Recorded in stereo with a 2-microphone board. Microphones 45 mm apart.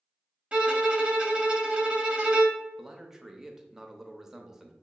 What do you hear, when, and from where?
0.5 s a violin: 30° right (ahead or behind), 0.7 m
2.8 s a man speaking: 10° right (ahead or behind), 0.6 m